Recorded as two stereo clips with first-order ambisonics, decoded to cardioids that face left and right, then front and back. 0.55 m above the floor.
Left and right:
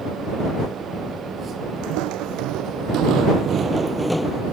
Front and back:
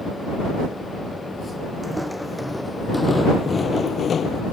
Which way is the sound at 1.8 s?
90° right.